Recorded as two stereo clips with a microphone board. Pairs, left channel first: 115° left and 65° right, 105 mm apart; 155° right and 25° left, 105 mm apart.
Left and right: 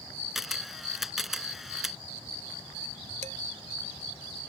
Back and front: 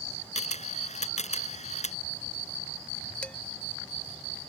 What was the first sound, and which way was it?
A camera shutter, 155° right.